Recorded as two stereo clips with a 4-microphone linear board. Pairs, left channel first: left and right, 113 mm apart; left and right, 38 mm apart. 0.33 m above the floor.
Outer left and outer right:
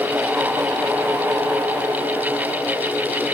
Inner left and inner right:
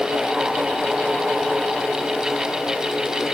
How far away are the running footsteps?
No running footsteps in this recording.